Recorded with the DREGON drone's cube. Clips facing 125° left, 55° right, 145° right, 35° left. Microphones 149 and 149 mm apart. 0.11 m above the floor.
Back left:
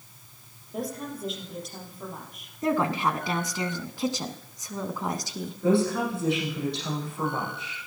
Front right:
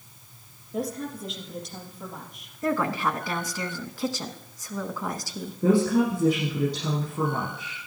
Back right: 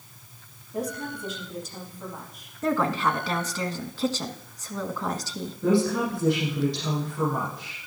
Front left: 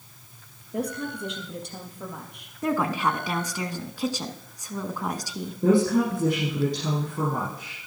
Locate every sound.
0.7 s a woman speaking: 35° left, 4 m
2.6 s a woman speaking: 95° left, 1.1 m
5.6 s a woman speaking: 5° right, 6 m